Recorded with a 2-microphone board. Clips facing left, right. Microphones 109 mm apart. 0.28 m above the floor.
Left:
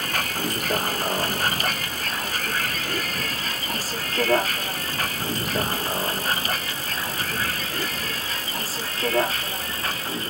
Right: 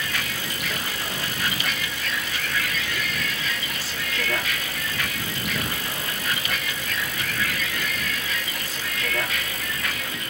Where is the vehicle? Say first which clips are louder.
Left 3 dB; 45° left (ahead or behind); by 10.3 s 35° left (ahead or behind).